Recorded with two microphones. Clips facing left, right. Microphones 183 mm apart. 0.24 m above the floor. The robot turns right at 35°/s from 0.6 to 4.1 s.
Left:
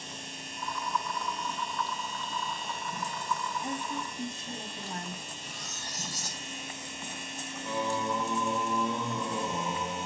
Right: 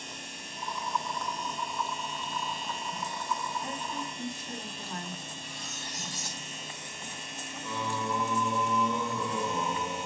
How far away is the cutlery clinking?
About 3 m.